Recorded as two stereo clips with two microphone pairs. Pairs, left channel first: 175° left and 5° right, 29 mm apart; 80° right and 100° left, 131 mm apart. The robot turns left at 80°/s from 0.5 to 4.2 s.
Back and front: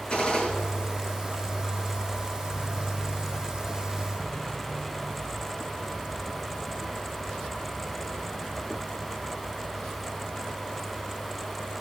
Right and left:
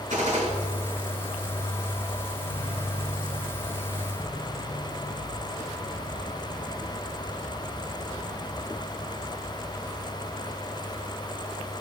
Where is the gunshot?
125° left, 6 m; by 0.5 s 120° left, 6 m.